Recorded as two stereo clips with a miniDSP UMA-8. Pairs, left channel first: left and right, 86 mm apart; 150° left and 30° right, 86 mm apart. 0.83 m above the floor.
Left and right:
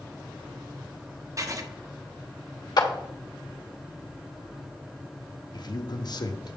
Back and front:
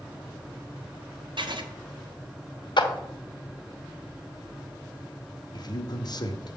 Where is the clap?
125° left, 1.0 m.